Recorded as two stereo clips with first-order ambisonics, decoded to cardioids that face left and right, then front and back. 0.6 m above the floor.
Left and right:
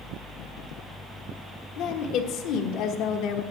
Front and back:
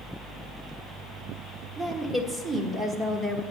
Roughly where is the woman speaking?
Left.